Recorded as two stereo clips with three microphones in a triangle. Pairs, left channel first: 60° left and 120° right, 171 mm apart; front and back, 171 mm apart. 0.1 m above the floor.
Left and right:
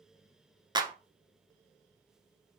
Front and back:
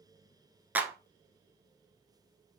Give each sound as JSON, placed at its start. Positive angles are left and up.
{"t": 0.8, "sound": "a clap", "azimuth_deg": -115, "distance_m": 0.9}